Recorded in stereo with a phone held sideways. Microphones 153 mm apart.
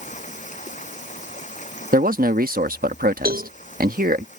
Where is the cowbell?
80° right.